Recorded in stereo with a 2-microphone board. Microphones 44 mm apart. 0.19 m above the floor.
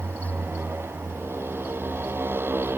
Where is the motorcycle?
65° right (ahead or behind); by 2.8 s 55° right (ahead or behind).